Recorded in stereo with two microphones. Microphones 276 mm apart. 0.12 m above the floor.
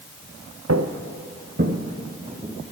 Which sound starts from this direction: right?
Footsteps, at 0.7 s.